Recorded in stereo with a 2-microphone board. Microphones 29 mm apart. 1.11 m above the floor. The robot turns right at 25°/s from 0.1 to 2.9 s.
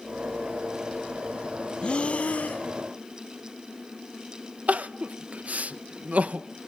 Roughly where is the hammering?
No hammering in this recording.